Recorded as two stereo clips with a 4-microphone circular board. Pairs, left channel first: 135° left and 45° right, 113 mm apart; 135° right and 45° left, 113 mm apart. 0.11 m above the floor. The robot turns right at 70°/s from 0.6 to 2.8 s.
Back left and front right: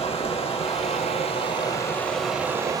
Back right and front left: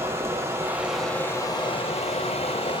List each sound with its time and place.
0.0 s running water: 110° left, 1.1 m; by 2.8 s 95° right, 1.1 m